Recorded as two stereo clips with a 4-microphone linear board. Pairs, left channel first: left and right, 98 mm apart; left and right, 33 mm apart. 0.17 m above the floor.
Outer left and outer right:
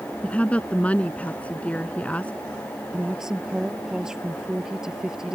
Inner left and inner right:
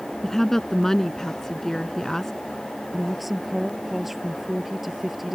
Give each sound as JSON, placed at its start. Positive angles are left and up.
{"t": 0.2, "sound": "a woman speaking", "side_deg": 15}
{"t": 2.9, "sound": "a woman speaking", "side_deg": -5}